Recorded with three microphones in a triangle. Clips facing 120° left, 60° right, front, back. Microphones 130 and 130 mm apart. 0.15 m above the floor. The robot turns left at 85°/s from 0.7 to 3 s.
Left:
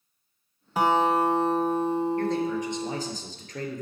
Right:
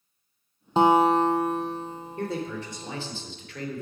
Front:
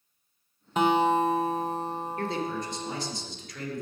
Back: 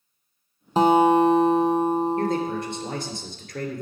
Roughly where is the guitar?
Behind right.